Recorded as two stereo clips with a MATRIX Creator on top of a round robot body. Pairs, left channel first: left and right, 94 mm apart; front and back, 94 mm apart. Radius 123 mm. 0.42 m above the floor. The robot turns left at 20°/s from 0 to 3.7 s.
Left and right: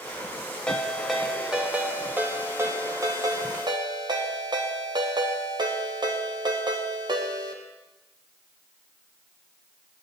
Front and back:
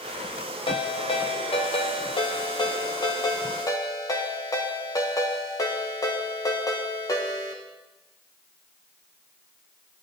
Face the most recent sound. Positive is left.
turn(degrees=-50)